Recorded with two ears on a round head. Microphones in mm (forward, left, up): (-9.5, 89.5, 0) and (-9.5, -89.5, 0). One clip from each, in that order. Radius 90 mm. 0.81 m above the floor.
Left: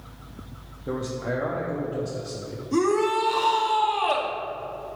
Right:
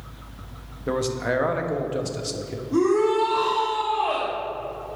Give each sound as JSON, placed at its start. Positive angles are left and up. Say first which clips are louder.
{"t": 0.9, "sound": "a man speaking", "louder": "right 5 dB", "side_deg": -60, "distance_m": 0.8}
{"t": 2.7, "sound": "a shout", "louder": "right 2 dB", "side_deg": 55, "distance_m": 1.3}